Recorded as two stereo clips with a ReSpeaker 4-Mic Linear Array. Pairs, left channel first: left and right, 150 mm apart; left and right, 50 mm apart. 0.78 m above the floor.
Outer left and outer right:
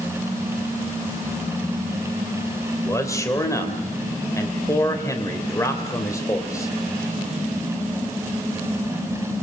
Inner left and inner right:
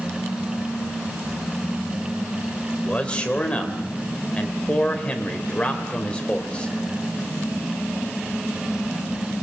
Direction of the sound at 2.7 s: 20° left (ahead or behind).